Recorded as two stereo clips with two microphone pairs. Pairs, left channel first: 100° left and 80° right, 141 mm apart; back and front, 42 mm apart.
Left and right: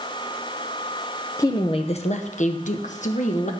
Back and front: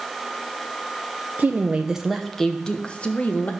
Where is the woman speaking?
35° left, 0.7 m; by 3.5 s 130° left, 1.4 m.